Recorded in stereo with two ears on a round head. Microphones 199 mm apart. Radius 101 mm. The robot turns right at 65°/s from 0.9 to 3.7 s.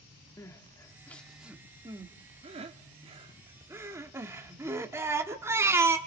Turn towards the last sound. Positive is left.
turn(degrees=-10)  # may be behind; listen again after turning